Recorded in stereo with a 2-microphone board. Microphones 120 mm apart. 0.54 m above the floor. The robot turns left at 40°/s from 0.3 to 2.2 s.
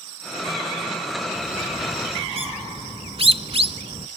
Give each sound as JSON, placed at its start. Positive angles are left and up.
{"t": 1.4, "sound": "a bird", "side_deg": -65, "distance_m": 0.8}